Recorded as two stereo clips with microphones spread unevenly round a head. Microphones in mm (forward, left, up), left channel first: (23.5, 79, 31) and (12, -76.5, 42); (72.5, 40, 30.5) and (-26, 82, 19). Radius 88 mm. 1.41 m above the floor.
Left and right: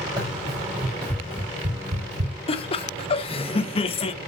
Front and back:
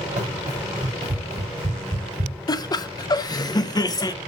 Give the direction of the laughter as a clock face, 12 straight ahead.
11 o'clock.